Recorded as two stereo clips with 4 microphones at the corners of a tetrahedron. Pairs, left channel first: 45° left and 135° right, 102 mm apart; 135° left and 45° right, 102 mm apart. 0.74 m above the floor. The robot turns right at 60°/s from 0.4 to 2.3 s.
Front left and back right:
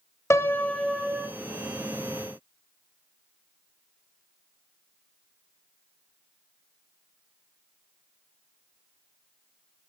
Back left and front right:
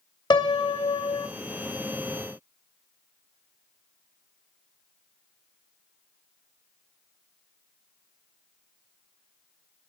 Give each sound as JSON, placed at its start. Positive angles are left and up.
{"t": 0.3, "sound": "a piano", "azimuth_deg": 100, "distance_m": 0.7}